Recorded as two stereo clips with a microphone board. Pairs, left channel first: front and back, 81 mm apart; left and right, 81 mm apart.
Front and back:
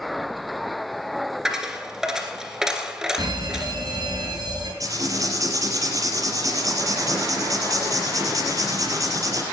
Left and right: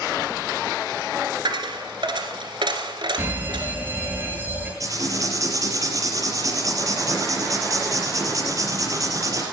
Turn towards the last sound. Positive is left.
turn(degrees=-135)